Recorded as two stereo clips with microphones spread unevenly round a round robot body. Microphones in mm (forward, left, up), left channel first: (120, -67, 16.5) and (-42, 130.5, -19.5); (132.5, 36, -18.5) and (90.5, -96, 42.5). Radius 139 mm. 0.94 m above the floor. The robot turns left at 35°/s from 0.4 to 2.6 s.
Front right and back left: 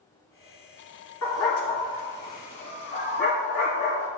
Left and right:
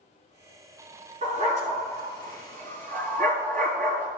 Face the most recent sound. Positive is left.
turn(degrees=-135)